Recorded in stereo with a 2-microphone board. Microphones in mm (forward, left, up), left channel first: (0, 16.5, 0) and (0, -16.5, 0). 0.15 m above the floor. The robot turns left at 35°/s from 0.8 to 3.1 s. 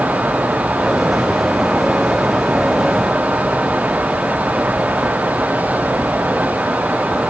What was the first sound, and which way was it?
Only background noise.